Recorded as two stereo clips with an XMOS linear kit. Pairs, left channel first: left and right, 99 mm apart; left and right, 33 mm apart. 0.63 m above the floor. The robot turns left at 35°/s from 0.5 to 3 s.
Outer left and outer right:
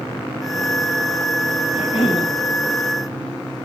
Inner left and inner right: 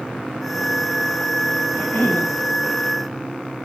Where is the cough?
75° left (ahead or behind), 5.5 m.